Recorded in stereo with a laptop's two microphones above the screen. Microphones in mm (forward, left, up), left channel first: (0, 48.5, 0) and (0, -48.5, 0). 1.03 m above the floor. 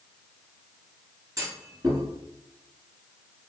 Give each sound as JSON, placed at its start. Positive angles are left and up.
{"t": 1.4, "sound": "a clunk", "side_deg": -35, "distance_m": 2.0}